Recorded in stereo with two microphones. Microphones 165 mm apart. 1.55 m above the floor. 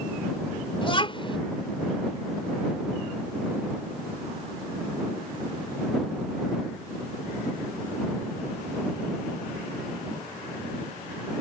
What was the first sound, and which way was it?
A child speaking, 35° left (ahead or behind).